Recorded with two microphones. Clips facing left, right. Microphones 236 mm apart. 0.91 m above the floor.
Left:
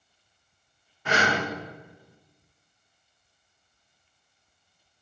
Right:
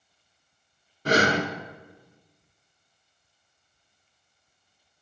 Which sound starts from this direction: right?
Breathing, at 1.1 s.